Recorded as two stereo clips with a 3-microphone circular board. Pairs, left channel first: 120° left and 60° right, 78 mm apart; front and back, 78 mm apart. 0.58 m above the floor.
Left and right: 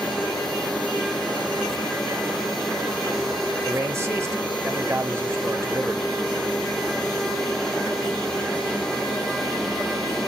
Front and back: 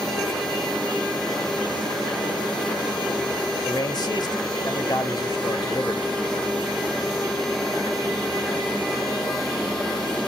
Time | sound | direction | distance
3.6 | a man speaking | 10° right | 2.5 m